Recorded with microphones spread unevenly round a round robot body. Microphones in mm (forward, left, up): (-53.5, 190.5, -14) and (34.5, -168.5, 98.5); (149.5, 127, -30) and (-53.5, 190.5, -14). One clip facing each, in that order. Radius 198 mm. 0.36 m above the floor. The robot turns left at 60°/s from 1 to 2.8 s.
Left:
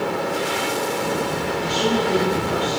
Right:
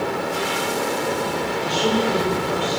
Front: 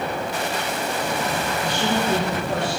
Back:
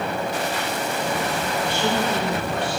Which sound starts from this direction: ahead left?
A woman speaking, at 1.6 s.